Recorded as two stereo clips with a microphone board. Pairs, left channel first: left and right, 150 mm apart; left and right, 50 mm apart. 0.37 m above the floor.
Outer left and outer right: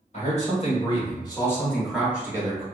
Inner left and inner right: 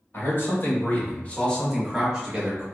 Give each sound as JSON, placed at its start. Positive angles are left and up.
{"t": 0.1, "sound": "a man speaking", "side_deg": 50, "distance_m": 1.3}